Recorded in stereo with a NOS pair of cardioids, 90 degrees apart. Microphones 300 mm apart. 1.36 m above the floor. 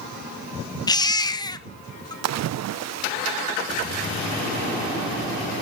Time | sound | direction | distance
0.9 | a baby crying | 15° left | 1.1 m
2.2 | a splash | 60° right | 0.7 m